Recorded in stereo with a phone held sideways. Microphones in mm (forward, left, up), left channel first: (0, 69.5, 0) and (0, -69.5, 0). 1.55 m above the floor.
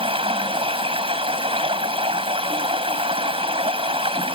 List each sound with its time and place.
0.0 s running water: 40° right (ahead or behind)